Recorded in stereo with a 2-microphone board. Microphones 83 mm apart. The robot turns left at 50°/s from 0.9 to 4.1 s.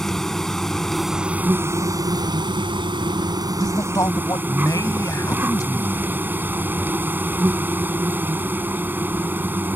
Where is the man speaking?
60° left (ahead or behind); by 6.1 s 45° left (ahead or behind).